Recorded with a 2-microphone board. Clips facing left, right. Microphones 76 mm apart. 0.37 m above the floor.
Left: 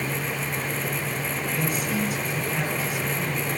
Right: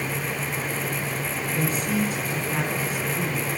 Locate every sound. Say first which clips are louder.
1.5 s a man speaking: right 3 dB; 35° right (ahead or behind), 4 m